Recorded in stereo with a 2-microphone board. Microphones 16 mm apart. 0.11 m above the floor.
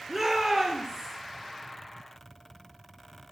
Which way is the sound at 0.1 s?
20° right (ahead or behind).